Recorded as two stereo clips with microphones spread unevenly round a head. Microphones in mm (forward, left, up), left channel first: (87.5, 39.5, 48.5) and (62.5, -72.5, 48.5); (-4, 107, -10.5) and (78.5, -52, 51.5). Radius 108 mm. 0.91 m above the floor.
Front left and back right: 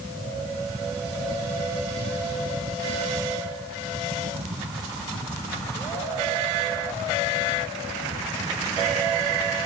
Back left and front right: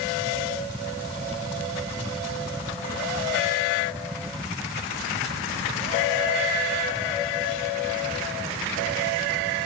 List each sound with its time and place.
0.0 s a fan: 135° right